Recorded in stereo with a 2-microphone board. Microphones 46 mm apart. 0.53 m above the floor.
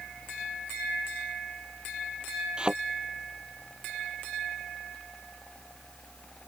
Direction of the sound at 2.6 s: 20° right (ahead or behind).